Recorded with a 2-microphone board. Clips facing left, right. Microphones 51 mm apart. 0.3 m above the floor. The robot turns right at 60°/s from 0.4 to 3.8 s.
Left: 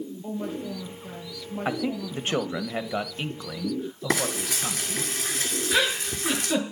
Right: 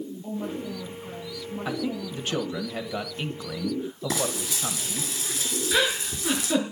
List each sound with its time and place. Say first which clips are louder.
0.2 s a woman speaking: even; 10° left, 8 m; by 2.6 s 145° left, 8 m
1.6 s a man speaking: left 2 dB; 70° left, 1.3 m; by 5.1 s 165° right, 1.3 m
4.1 s frying: left 4 dB; 45° left (ahead or behind), 3 m
5.7 s a giggle: even; centre (ahead or behind), 4 m